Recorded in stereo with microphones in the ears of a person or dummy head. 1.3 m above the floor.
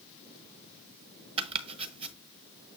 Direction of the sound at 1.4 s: 35° right (ahead or behind).